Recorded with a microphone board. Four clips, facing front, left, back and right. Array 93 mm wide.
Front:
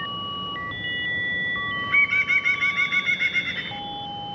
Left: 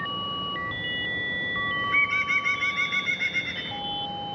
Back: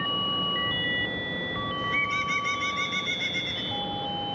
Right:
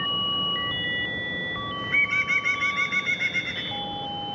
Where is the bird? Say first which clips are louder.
Right 1 dB, front 6 dB; 10° right, 0.5 m.